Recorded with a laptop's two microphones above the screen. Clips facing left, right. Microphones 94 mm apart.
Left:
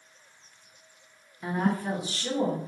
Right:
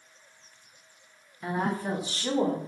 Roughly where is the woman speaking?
Centre.